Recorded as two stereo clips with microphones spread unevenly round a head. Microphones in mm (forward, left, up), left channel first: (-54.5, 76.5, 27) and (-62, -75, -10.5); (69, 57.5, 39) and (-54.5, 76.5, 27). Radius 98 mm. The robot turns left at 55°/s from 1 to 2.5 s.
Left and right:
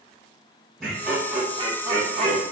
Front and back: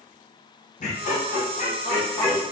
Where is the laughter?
10° right, 1.0 m; by 2.4 s 85° right, 1.0 m.